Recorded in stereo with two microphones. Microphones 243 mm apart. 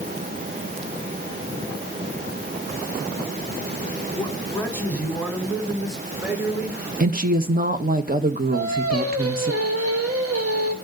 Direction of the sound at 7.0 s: 35° right (ahead or behind).